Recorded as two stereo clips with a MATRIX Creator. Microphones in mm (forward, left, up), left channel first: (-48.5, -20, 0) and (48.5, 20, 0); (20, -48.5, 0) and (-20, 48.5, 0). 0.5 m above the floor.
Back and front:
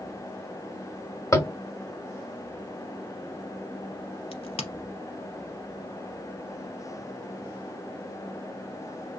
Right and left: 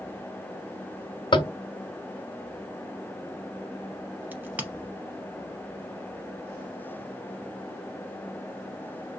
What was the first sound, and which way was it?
Tapping, 100° right.